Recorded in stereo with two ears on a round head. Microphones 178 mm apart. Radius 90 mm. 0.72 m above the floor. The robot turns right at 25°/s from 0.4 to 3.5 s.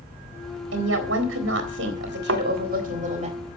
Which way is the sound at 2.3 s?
70° right (ahead or behind).